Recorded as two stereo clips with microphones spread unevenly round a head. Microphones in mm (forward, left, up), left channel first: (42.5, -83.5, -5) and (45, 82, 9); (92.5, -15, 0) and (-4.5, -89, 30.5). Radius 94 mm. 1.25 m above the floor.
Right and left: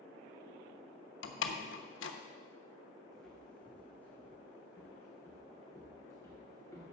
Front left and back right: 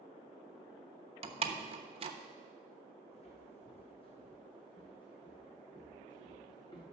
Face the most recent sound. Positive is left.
turn(degrees=-20)